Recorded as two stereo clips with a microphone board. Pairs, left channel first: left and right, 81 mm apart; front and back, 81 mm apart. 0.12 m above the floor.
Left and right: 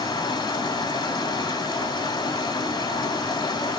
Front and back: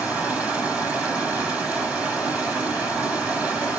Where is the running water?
105° left, 5 m.